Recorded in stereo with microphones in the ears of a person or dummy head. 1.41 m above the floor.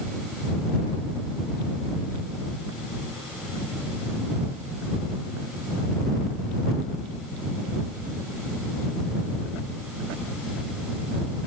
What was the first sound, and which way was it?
Only background noise.